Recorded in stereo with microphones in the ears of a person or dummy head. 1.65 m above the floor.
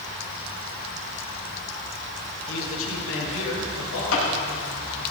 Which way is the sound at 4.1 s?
80° left.